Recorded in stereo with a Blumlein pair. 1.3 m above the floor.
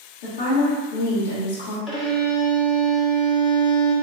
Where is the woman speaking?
55° left, 1.6 m.